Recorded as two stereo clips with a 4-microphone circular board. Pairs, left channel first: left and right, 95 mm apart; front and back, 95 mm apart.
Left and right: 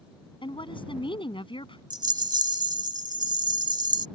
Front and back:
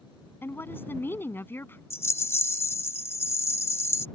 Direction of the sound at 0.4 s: 65° left.